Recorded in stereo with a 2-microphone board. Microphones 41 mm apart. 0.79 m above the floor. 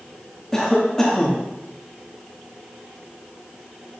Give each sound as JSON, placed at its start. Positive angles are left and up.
{"t": 0.5, "sound": "a cough", "side_deg": 15, "distance_m": 1.0}